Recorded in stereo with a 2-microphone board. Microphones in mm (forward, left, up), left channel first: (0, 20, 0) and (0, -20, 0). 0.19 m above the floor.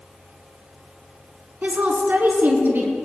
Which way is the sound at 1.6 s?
45° right (ahead or behind).